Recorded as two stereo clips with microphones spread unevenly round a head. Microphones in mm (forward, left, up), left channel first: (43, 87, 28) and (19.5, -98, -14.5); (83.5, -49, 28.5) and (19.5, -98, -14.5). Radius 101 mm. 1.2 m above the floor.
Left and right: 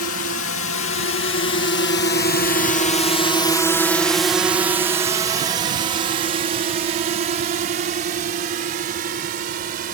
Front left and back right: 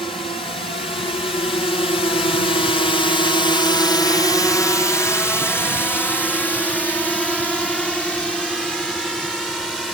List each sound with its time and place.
0.0 s a drone: 100° left; by 9.9 s 55° right